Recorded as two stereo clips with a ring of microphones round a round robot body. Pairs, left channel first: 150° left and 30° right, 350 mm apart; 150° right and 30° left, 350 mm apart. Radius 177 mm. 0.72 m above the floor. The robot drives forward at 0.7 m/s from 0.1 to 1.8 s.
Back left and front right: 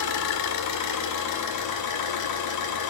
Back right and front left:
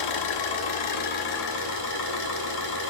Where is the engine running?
165° right, 1.3 m; by 2.9 s 170° right, 2.5 m.